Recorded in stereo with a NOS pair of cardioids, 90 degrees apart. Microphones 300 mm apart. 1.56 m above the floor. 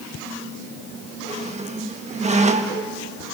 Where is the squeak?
25° right, 1.8 m.